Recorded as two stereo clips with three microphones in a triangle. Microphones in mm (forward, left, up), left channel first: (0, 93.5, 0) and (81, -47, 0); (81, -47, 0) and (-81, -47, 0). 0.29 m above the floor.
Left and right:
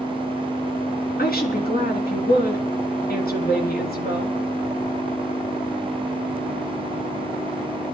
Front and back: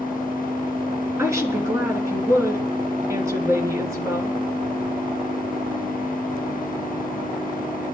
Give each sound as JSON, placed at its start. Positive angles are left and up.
{"t": 1.2, "sound": "a woman speaking", "azimuth_deg": 110, "distance_m": 3.5}